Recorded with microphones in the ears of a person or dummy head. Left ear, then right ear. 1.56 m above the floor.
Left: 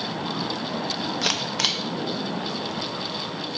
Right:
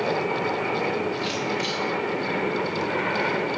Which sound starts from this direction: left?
A camera shutter, at 1.2 s.